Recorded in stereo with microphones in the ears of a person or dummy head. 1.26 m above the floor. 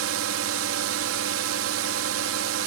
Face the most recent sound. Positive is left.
turn(degrees=-75)  # may be behind; listen again after turning